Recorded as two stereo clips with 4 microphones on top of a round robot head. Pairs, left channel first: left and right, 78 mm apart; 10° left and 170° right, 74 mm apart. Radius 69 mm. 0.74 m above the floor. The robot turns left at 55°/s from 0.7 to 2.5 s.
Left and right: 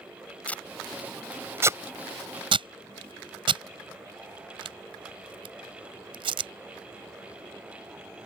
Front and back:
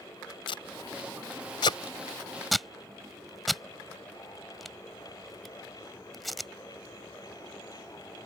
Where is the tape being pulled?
20° left; by 6.5 s 80° right.